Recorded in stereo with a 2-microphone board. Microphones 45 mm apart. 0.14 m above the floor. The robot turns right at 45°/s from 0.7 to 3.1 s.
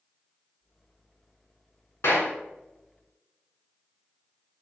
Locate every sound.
2.0 s a clap: 70° left (ahead or behind), 3.5 m; by 2.3 s 75° left (ahead or behind), 3.5 m